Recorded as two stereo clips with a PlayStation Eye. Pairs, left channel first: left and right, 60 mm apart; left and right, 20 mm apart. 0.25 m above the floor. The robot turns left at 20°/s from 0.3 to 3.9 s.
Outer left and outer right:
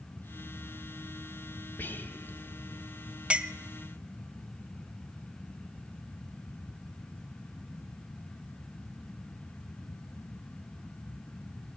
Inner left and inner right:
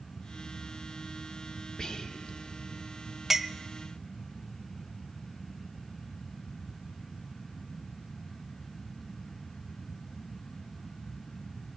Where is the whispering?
35° left (ahead or behind), 1.1 m.